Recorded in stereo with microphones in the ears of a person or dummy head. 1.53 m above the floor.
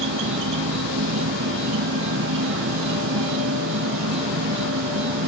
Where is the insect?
75° right (ahead or behind).